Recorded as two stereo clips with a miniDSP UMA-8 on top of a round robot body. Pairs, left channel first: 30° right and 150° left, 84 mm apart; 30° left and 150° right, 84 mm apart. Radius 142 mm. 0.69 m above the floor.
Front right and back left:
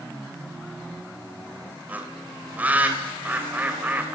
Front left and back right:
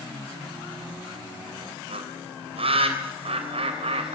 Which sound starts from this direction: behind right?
A bird, at 1.9 s.